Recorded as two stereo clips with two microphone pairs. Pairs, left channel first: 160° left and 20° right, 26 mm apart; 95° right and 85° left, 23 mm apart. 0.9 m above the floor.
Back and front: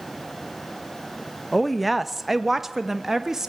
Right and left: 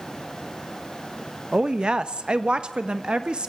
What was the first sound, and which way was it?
A woman speaking, 70° left.